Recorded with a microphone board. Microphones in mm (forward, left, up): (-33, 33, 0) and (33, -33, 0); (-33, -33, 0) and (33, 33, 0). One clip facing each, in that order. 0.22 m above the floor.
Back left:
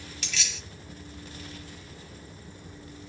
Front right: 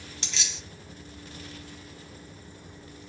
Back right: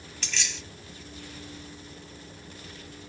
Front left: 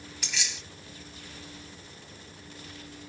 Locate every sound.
0.2 s keys jangling: 25° right, 1.1 m